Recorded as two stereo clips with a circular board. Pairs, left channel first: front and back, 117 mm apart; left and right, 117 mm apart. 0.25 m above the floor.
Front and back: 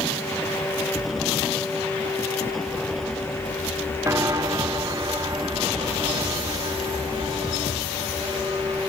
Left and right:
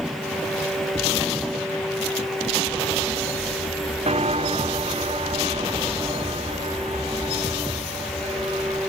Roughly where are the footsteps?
Behind right.